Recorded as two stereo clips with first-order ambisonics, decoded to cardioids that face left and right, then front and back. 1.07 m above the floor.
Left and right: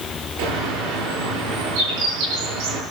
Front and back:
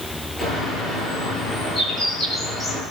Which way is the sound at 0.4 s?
85° right.